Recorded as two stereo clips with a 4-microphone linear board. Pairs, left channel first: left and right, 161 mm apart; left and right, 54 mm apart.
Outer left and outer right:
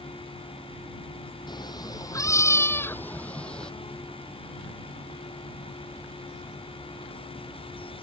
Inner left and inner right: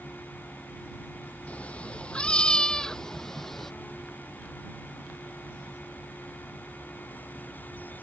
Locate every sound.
1.5 s a cat meowing: 25° left (ahead or behind); by 3.7 s 5° left (ahead or behind)